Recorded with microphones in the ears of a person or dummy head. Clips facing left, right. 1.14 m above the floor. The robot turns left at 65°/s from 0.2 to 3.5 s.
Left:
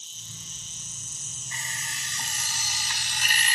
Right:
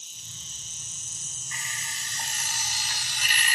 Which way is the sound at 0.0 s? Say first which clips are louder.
Left 4 dB; 15° right.